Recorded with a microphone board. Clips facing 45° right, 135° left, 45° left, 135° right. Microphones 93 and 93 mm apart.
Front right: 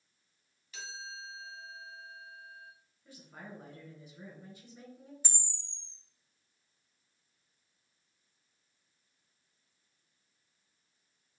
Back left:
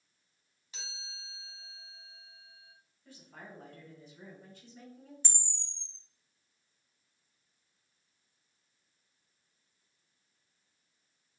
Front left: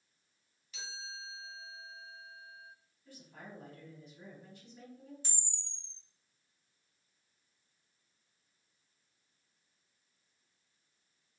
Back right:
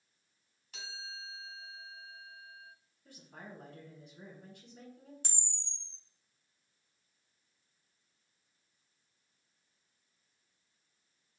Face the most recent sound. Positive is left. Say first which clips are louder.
# even, even
turn(degrees=-125)